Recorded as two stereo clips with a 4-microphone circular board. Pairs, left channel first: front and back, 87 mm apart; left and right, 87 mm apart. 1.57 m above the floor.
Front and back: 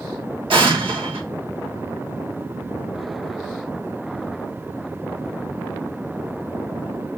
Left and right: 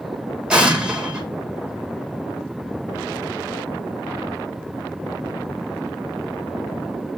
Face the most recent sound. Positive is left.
turn(degrees=-170)